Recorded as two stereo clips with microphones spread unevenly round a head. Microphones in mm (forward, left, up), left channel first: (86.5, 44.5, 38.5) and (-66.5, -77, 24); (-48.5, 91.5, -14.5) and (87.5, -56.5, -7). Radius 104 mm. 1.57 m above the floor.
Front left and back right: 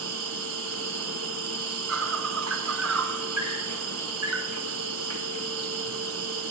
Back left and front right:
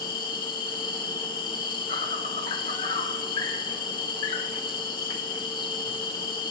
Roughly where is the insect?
Behind.